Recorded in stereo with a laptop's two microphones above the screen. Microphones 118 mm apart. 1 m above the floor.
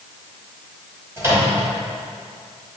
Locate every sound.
1.2 s a microwave: 20° right (ahead or behind), 3 m